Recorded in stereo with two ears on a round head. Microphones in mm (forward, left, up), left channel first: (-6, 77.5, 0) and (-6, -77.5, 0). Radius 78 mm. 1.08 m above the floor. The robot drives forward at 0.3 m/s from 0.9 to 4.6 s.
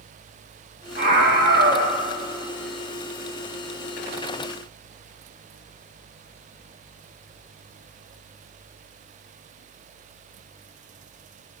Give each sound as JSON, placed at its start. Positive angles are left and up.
{"t": 1.0, "sound": "a scream", "side_deg": -50, "distance_m": 1.5}